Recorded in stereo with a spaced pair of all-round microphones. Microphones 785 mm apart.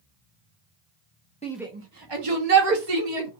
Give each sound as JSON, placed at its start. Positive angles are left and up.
{"t": 1.4, "sound": "a shout", "side_deg": 10, "distance_m": 0.8}